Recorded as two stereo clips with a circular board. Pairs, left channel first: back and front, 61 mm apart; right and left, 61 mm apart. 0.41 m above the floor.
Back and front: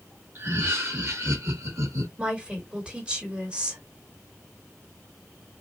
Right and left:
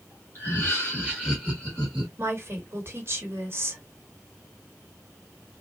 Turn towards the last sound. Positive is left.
turn(degrees=70)